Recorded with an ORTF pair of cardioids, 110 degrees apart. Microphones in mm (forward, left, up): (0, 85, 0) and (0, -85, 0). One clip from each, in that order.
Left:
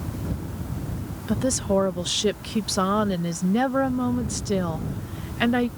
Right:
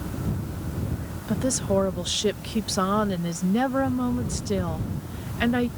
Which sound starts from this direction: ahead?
A woman speaking, at 1.3 s.